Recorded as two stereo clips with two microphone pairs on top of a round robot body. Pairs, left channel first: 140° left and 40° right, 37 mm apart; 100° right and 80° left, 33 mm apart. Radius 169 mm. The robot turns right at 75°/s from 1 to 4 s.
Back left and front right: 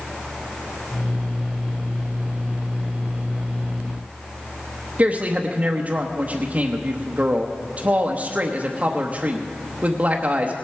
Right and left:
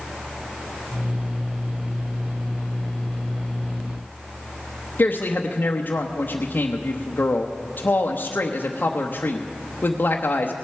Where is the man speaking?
95° right, 1.0 m.